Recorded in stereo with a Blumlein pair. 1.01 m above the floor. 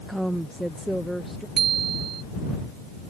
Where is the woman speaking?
Straight ahead.